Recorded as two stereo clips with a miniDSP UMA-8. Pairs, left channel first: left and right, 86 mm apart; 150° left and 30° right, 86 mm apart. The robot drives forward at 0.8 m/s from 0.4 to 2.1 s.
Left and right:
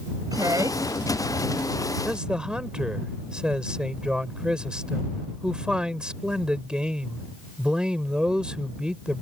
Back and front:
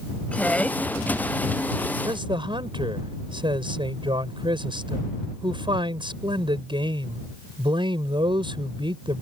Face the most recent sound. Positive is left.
turn(degrees=-10)